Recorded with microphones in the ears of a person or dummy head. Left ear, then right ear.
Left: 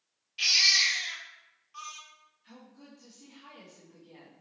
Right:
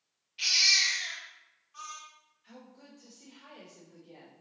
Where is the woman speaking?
15° right (ahead or behind), 3.5 m.